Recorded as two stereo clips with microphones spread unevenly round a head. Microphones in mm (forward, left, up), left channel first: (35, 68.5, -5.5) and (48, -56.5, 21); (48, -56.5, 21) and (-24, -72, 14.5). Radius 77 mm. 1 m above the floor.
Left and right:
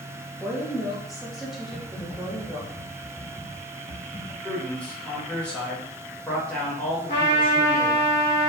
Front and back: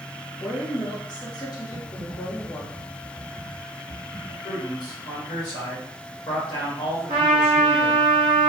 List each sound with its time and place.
0.4 s a woman speaking: 10° left, 1.3 m
1.7 s typing on a keyboard: 65° left, 1.3 m
4.4 s a man speaking: 25° left, 1.5 m
7.1 s a trumpet: 140° left, 0.9 m